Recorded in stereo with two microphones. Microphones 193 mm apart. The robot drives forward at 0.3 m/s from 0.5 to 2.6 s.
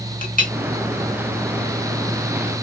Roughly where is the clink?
Left.